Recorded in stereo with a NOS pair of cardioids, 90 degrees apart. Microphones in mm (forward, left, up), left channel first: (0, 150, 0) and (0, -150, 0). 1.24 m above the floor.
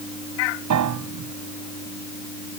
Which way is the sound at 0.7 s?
65° right.